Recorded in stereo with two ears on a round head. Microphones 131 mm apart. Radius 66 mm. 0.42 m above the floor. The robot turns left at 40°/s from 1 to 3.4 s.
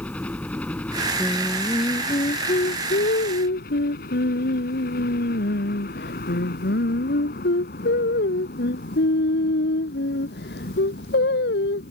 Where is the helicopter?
170° left; by 11.9 s 75° left.